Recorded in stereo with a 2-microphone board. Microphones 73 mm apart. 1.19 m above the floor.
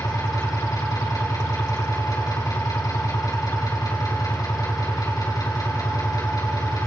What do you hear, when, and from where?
0.0 s an engine running: 55° left (ahead or behind), 5 m